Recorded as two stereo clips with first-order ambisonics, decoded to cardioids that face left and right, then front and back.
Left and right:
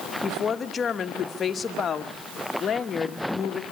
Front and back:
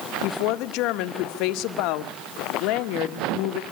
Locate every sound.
0.2 s a woman speaking: 20° left, 1.2 m